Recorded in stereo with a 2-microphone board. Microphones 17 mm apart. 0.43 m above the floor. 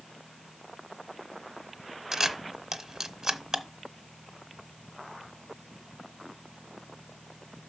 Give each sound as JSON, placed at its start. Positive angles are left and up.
{"t": 2.1, "sound": "a camera shutter", "side_deg": -35, "distance_m": 0.9}